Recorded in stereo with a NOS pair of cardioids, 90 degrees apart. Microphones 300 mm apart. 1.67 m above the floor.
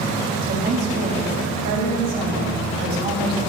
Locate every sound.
0.4 s a woman speaking: 60° right, 2 m